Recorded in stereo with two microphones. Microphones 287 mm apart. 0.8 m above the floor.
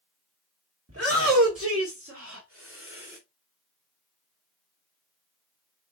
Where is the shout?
55° right (ahead or behind), 2.5 m; by 3.2 s 45° right (ahead or behind), 3.5 m.